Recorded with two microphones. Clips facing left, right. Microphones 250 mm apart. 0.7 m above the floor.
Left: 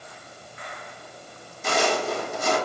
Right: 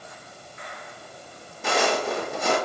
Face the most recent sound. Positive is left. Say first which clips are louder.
# even
turn(degrees=-65)  # may be behind; listen again after turning